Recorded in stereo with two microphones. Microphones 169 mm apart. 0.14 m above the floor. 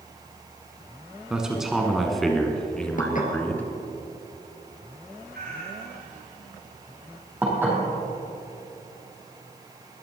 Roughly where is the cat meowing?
Right.